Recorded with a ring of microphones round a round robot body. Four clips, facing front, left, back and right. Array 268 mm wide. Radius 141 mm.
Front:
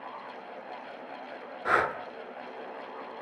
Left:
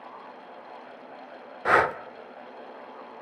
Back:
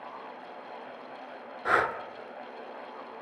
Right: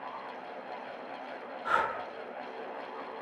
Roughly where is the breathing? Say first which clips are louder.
Left 8 dB, even; left.